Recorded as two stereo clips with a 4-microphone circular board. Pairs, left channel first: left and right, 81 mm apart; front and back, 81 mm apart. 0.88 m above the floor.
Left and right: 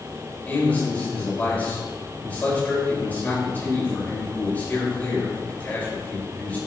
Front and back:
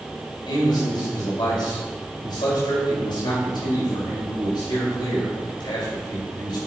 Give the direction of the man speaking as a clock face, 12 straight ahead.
11 o'clock.